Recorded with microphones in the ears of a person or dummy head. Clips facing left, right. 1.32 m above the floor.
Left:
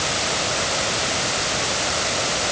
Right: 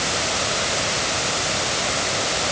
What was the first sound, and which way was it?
Only background noise.